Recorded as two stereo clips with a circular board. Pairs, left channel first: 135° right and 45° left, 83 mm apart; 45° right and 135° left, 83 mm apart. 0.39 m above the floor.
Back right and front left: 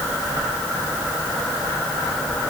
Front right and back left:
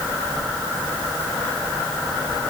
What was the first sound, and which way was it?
Only background noise.